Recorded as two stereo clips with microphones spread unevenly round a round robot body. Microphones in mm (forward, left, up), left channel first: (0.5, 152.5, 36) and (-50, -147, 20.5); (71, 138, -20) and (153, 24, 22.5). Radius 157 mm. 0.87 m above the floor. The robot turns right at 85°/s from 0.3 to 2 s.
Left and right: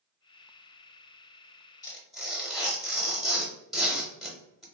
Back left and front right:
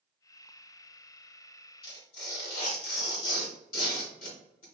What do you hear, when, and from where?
1.8 s tearing paper: 150° left, 0.8 m; by 4.6 s 165° left, 0.8 m